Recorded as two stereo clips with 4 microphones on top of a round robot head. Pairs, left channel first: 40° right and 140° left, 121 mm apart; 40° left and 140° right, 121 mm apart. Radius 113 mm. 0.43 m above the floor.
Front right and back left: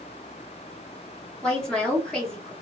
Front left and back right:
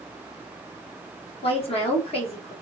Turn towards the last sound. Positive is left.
turn(degrees=45)